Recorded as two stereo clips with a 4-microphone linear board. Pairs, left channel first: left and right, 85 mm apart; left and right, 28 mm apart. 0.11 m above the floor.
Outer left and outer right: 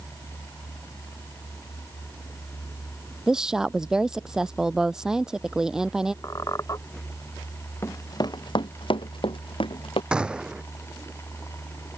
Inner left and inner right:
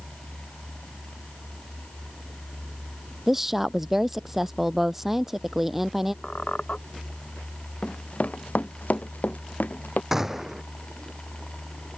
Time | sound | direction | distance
3.3 | a woman speaking | 5° right (ahead or behind) | ?
6.2 | a squeak | 40° left (ahead or behind) | ?
7.8 | running footsteps | 30° left (ahead or behind) | ?
10.1 | a gunshot | 10° right (ahead or behind) | ?